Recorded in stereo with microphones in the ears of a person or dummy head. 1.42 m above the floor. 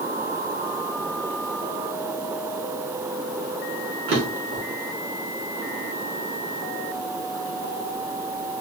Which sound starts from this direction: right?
A drawer, at 4.1 s.